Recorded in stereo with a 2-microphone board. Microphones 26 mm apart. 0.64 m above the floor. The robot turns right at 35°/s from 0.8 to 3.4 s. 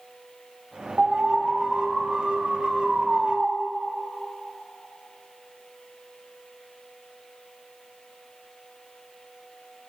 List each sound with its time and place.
1.0 s an alarm: 135° right, 1.3 m; by 3.5 s 50° right, 1.3 m